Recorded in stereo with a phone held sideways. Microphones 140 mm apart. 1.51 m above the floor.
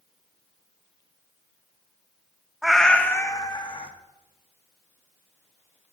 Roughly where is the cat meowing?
Centre.